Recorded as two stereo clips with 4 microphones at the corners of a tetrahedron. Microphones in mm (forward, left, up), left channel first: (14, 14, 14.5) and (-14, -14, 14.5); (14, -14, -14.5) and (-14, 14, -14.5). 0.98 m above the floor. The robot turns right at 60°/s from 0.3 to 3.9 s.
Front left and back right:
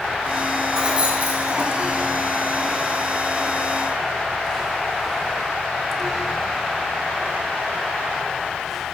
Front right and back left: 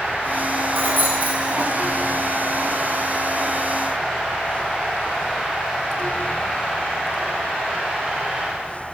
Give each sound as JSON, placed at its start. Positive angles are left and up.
{"t": 0.7, "sound": "keys jangling", "azimuth_deg": 150, "distance_m": 3.5}